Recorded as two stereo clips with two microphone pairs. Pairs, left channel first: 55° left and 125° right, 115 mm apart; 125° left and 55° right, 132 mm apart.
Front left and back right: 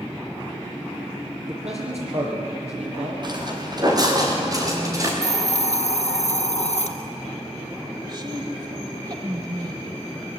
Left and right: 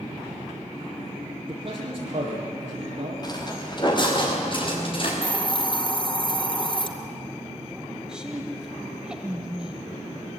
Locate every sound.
1.5 s a man speaking: 105° right, 8.5 m
3.2 s footsteps: straight behind, 5 m; by 5.1 s 170° left, 7 m
5.2 s a hiss: 70° left, 2 m
8.1 s a woman speaking: 140° right, 1.4 m